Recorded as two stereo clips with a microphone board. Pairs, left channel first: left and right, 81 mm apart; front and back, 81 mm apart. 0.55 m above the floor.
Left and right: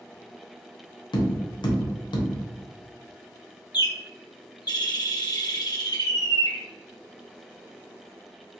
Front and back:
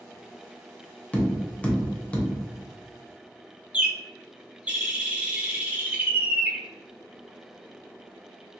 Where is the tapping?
75° left, 0.7 m.